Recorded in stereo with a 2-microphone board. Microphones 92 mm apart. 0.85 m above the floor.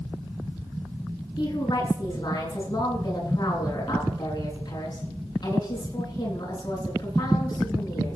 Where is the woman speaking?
45° left (ahead or behind), 8 m.